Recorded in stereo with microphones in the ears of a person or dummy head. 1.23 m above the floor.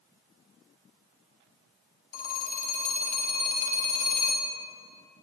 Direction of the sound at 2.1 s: 50° left (ahead or behind).